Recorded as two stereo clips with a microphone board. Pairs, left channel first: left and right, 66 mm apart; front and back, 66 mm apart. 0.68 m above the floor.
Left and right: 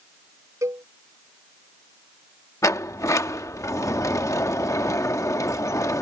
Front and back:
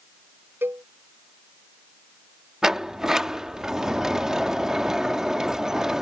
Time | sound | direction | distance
0.6 | a cowbell | 125° right | ?
2.6 | a sliding door | 100° left | ?